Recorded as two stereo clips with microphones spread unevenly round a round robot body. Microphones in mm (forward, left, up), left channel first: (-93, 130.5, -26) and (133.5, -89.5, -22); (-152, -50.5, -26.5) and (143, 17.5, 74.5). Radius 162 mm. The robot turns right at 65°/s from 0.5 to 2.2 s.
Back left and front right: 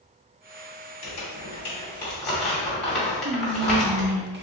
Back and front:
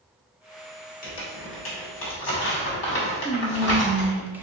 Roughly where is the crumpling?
Behind left.